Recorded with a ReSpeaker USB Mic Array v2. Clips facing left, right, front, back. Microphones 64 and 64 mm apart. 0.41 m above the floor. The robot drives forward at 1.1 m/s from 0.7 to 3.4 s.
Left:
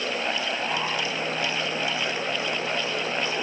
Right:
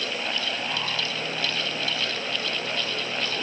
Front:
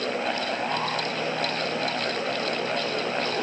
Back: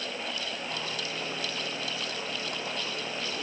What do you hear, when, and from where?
Only background noise.